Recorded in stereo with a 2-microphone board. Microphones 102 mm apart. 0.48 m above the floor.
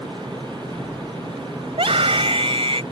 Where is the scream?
70° right (ahead or behind).